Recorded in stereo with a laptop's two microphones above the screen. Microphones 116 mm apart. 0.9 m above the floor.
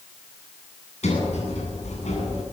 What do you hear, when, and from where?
1.0 s a sliding door: 70° left (ahead or behind), 9.5 m